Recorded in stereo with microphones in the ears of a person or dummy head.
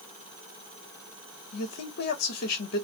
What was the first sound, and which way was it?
A man speaking, 60° left (ahead or behind).